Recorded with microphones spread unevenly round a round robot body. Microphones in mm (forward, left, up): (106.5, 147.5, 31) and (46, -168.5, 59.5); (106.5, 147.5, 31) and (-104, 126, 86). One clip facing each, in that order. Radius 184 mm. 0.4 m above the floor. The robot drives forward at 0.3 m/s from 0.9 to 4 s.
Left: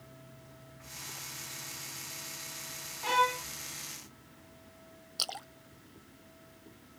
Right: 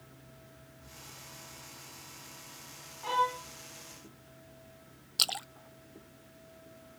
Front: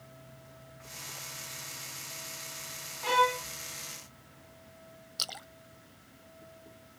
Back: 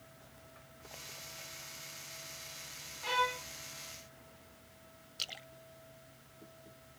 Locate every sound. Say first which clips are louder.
3.0 s a violin: left 2 dB, front 8 dB; 35° left
5.2 s a splash: right 2 dB, front 4 dB; 50° right